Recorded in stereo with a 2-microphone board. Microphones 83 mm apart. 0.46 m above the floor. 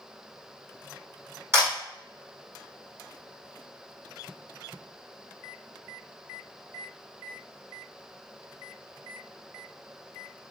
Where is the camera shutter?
30° right (ahead or behind), 1.7 m.